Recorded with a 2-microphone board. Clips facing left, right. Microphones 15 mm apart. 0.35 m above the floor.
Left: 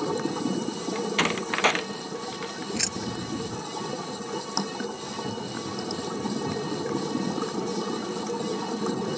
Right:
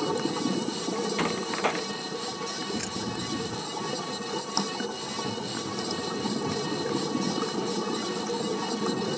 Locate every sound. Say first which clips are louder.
0.9 s a door slam: left 4 dB; 50° left (ahead or behind)
2.8 s keys jangling: left 2 dB; 45° left (ahead or behind)